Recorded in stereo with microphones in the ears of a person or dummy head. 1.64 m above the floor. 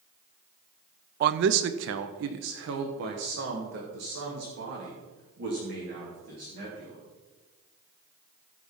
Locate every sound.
1.2 s a man speaking: 50° right (ahead or behind), 0.6 m; by 7.0 s 65° right (ahead or behind), 4 m